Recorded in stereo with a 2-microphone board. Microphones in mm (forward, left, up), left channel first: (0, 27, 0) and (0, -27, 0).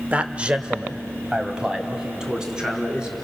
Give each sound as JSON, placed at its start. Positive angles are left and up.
{"t": 0.1, "sound": "a man speaking", "side_deg": -25, "distance_m": 0.9}